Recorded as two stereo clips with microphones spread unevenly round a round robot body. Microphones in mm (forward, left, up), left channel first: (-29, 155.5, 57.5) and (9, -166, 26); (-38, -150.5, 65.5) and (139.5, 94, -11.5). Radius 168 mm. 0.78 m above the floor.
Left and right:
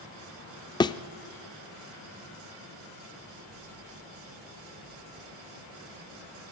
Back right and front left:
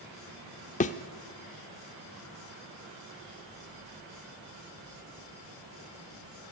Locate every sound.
0.8 s a thud: 170° left, 0.6 m